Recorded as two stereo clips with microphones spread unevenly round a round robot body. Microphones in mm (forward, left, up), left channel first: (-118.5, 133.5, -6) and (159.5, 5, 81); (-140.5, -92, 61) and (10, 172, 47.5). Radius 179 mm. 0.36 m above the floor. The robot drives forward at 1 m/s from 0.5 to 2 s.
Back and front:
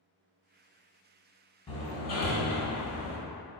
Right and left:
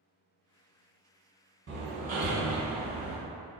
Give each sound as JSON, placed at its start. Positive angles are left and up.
{"t": 1.7, "sound": "hammering", "azimuth_deg": 100, "distance_m": 1.3}